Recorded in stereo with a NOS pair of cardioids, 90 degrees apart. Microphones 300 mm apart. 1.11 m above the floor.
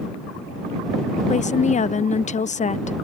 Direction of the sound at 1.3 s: 25° left.